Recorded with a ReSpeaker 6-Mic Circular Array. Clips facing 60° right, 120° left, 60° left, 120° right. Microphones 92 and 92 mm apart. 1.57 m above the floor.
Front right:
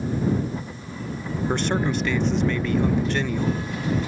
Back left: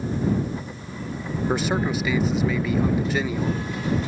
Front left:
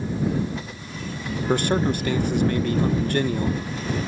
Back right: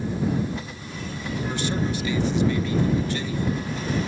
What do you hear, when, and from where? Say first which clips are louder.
1.5 s a man speaking: even, front left 7 dB; 35° left